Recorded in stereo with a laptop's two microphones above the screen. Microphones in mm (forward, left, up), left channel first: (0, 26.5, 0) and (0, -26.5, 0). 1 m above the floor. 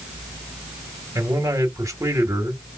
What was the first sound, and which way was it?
A man speaking, 70° right (ahead or behind).